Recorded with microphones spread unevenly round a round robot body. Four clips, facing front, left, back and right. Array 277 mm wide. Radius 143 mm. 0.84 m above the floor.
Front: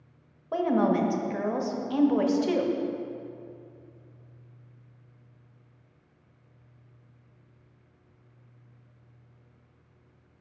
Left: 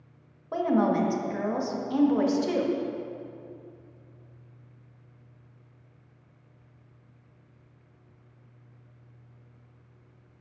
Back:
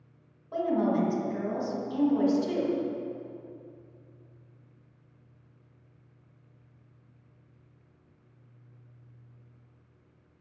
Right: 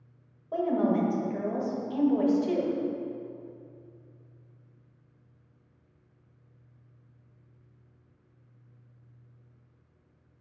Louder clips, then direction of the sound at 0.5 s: Left 2 dB, front 2 dB; 45° left.